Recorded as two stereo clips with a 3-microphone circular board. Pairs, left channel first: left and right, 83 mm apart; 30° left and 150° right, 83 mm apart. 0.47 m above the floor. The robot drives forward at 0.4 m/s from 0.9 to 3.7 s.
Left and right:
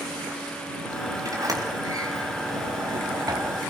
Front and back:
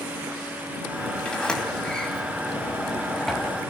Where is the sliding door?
45° right, 3.5 m; by 3.6 s 60° right, 3 m.